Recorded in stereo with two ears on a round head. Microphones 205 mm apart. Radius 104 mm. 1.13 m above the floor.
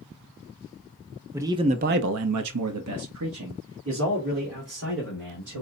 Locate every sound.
1.3 s a man speaking: 10° right (ahead or behind), 0.7 m; by 5.6 s 50° right (ahead or behind), 2.5 m